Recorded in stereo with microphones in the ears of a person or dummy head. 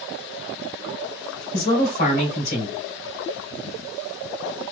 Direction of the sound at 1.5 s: 55° left (ahead or behind).